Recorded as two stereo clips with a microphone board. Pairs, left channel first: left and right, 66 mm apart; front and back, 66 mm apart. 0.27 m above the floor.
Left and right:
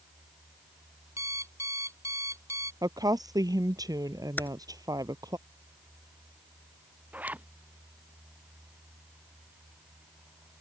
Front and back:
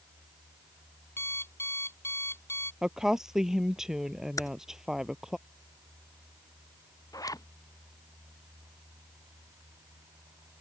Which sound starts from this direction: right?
A woman speaking, at 2.8 s.